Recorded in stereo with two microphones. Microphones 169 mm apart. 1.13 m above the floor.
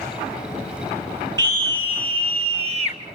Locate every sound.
1.4 s a scream: 25° right (ahead or behind), 3.5 m; by 3.0 s 40° right (ahead or behind), 4.5 m